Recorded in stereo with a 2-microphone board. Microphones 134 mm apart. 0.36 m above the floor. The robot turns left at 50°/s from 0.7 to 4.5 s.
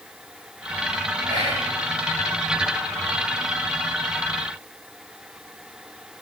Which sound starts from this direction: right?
Whispering, at 1.2 s.